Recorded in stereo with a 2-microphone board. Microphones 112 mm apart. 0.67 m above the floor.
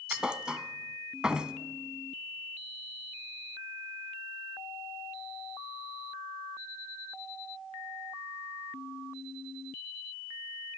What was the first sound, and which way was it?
A thud, 10° right (ahead or behind).